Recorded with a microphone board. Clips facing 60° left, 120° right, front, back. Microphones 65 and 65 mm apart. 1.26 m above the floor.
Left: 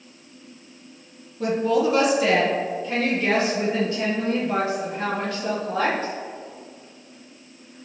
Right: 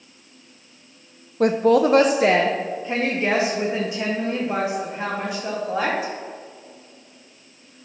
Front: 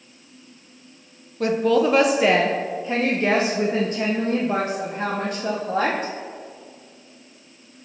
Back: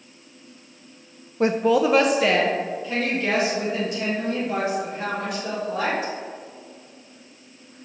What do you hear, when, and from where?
1.4 s a woman speaking: 125° right, 0.6 m; by 6.1 s 40° right, 2.5 m